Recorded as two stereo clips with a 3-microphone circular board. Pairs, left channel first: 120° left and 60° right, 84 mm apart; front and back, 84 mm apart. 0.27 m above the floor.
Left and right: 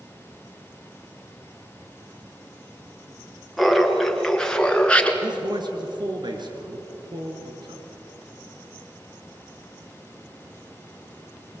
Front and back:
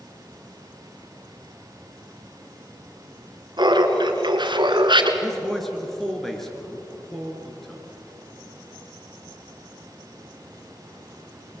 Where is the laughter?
150° right, 3.5 m; by 5.1 s 165° right, 3 m.